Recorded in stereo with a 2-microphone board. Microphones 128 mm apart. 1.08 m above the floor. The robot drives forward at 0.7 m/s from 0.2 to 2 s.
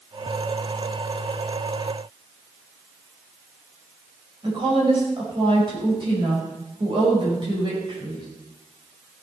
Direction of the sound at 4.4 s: 40° right (ahead or behind).